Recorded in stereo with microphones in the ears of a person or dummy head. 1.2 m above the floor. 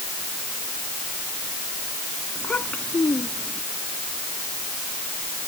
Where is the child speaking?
5° left (ahead or behind); by 3.6 s 10° left (ahead or behind).